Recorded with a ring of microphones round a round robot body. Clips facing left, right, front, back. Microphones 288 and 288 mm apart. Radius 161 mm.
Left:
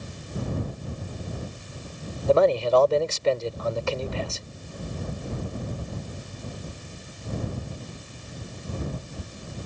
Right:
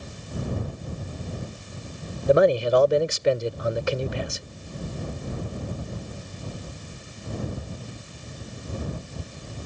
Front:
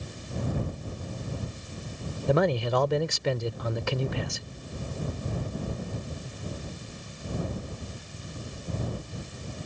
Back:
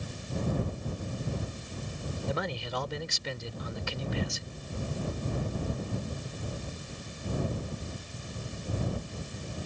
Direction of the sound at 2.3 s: 20° right.